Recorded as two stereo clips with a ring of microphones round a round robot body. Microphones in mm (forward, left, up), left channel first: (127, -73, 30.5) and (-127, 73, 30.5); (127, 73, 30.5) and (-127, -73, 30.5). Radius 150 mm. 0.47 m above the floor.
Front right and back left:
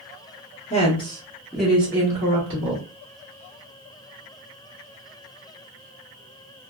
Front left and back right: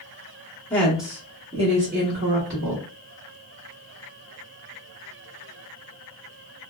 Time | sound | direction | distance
0.7 | a woman speaking | 45° right | 1.1 m